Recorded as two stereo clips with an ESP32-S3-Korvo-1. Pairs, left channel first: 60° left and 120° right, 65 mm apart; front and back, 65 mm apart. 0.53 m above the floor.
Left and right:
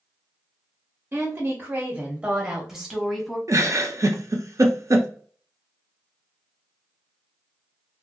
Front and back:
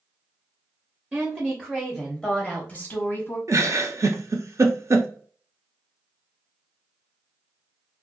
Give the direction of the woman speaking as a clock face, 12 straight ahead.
4 o'clock.